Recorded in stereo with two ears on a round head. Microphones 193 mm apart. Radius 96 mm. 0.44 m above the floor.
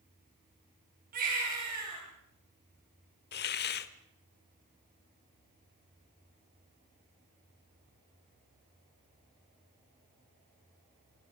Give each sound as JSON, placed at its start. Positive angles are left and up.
{"t": 1.1, "sound": "a baby crying", "side_deg": -40, "distance_m": 8.0}
{"t": 3.3, "sound": "a hiss", "side_deg": 50, "distance_m": 0.9}